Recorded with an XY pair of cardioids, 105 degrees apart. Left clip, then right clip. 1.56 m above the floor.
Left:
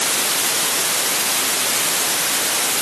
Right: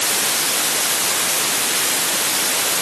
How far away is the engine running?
No engine running in this recording.